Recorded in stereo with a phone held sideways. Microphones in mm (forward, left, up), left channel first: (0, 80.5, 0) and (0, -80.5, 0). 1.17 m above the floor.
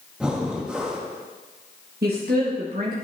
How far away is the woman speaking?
About 1.8 m.